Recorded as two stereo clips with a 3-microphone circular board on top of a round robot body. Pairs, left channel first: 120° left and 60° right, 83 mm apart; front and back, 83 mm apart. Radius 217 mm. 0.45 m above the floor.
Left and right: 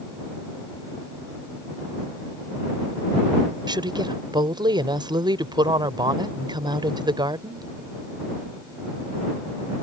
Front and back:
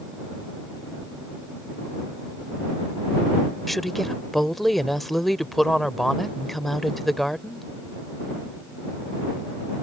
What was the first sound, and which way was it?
A woman speaking, 90° right.